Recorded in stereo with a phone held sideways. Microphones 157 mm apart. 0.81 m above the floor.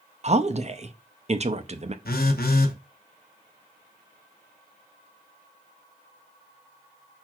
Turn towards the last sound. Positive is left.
turn(degrees=80)